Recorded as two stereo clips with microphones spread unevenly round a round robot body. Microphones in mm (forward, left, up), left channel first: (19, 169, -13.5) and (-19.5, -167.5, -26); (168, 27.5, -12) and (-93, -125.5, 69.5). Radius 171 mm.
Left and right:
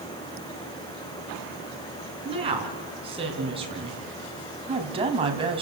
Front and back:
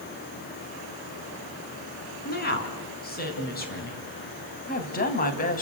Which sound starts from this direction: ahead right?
A woman speaking, at 2.2 s.